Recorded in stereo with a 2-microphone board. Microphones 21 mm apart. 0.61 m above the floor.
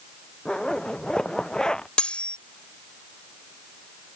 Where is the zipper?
35° left (ahead or behind).